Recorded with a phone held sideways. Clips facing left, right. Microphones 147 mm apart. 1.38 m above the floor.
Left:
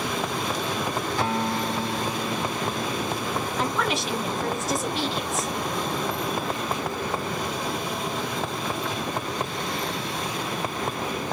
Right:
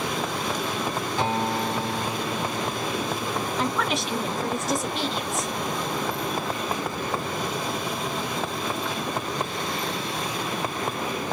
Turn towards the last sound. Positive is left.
turn(degrees=0)  # may be behind; listen again after turning